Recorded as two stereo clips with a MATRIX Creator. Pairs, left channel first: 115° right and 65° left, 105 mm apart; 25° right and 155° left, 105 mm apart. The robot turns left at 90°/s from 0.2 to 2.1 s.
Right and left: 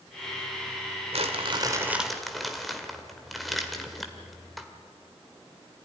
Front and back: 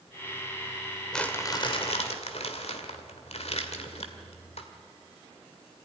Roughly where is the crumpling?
Ahead left.